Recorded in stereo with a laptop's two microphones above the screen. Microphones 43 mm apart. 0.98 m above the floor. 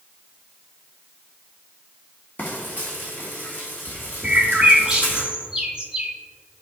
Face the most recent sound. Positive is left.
turn(degrees=-15)  # may be behind; listen again after turning